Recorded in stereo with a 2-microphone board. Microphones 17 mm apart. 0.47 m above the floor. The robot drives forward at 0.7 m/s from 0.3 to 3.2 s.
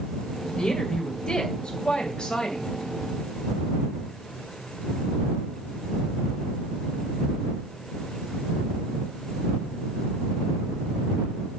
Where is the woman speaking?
60° left (ahead or behind), 2.5 m; by 2.7 s 45° left (ahead or behind), 3 m.